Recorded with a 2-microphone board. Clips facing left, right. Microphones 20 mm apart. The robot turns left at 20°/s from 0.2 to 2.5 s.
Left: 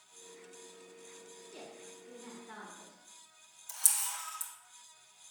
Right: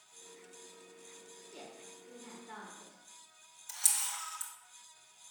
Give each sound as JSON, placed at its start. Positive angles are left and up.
{"t": 1.5, "sound": "a woman speaking", "side_deg": 0, "distance_m": 1.4}
{"t": 3.7, "sound": "a camera shutter", "side_deg": -25, "distance_m": 1.1}